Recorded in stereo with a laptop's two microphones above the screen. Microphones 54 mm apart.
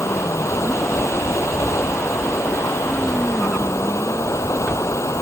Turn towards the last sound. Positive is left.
turn(degrees=75)  # may be behind; listen again after turning